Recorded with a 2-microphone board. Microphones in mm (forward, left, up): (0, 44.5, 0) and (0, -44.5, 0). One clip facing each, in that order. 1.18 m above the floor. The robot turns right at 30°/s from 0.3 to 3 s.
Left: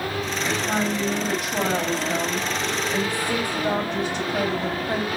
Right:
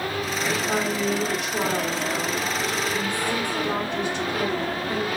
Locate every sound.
0.4 s a woman speaking: 20° left, 3 m; by 5.1 s 95° left, 3 m